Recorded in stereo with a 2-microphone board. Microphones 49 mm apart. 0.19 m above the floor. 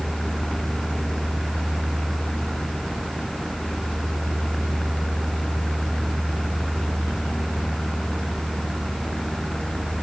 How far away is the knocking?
No knocking in this recording.